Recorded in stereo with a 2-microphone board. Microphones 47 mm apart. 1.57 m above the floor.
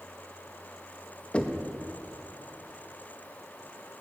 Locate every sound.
1.3 s knocking: 25° left (ahead or behind), 1.0 m